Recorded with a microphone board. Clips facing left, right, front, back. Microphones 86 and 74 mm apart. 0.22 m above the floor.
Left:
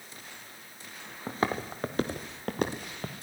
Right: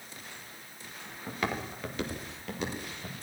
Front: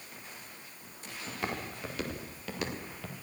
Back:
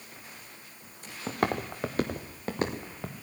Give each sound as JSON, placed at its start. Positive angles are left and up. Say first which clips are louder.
{"t": 1.3, "sound": "footsteps", "louder": "left 4 dB, back 8 dB", "azimuth_deg": 150, "distance_m": 2.0}